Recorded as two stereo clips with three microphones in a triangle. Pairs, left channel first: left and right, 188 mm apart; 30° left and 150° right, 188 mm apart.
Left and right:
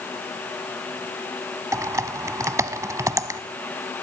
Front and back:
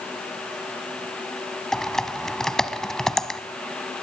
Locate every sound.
1.7 s typing on a keyboard: 55° right, 1.0 m